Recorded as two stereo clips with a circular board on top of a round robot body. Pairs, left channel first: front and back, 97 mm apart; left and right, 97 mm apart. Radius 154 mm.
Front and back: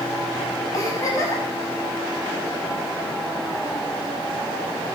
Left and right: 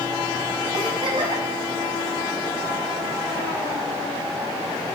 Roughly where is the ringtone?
I don't hear a ringtone.